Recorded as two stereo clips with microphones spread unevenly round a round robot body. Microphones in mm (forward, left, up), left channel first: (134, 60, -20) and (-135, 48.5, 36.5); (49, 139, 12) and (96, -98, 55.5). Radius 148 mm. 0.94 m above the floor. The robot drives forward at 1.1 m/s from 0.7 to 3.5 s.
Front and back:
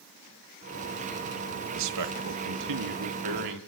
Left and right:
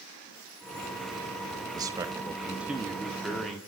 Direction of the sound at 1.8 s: 160° right.